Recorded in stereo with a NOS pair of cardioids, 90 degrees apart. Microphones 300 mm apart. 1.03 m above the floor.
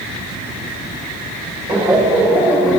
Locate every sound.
1.7 s laughter: 15° right, 4 m; by 2.8 s straight ahead, 3 m